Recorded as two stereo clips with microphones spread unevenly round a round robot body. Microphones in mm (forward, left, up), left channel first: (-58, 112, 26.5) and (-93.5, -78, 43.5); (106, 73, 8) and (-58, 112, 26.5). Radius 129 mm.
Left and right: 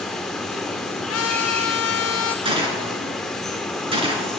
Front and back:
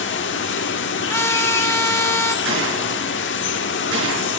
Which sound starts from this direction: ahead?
Running water, at 0.0 s.